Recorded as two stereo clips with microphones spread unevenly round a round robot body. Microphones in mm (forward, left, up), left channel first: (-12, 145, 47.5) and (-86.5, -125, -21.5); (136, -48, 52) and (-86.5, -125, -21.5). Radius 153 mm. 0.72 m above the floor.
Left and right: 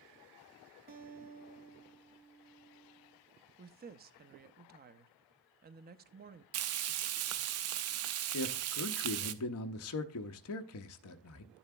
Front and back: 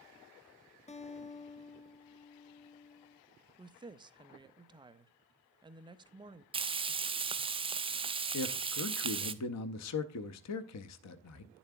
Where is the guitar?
50° right, 0.8 m.